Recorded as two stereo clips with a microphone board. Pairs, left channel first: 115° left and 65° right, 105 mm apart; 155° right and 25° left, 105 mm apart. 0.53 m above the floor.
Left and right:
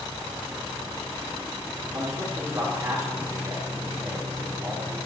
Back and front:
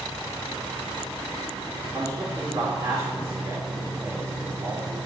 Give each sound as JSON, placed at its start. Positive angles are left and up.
{"t": 1.9, "sound": "a man speaking", "azimuth_deg": -20, "distance_m": 1.8}